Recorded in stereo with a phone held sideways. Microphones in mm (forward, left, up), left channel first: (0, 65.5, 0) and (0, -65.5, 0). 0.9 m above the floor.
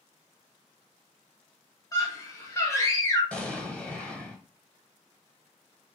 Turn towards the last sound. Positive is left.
turn(degrees=10)  # may be behind; listen again after turning